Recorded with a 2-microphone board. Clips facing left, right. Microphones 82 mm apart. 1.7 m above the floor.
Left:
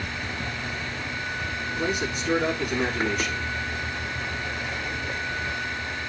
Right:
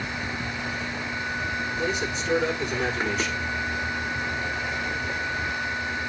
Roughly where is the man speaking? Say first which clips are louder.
Left 3 dB; left.